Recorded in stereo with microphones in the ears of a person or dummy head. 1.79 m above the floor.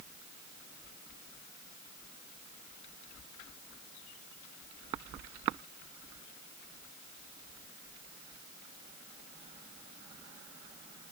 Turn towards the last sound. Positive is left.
No sound to turn to.